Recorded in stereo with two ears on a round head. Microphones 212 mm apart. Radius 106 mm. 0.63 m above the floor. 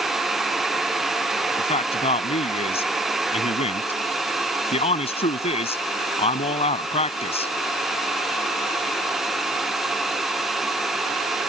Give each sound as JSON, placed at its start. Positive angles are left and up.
{"t": 1.6, "sound": "a man speaking", "side_deg": 25}